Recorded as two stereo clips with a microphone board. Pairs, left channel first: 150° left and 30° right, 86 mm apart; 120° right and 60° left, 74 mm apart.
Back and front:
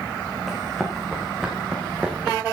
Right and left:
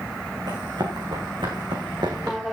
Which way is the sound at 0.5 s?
55° left.